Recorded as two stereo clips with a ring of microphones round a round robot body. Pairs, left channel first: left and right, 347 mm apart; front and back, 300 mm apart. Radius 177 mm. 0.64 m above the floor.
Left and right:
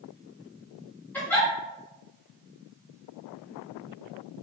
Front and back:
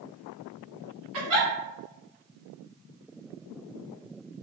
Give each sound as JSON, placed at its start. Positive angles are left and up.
{"t": 1.1, "sound": "a giggle", "azimuth_deg": 175, "distance_m": 1.2}